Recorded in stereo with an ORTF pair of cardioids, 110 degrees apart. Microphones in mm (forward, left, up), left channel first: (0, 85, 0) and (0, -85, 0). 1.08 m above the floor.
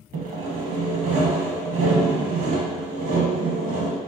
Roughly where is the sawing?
Ahead right.